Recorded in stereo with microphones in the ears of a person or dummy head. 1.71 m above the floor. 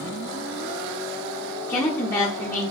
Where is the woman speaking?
15° left (ahead or behind), 0.7 m.